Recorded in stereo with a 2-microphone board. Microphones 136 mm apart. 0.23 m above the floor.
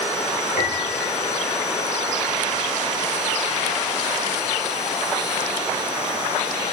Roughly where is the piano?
Left.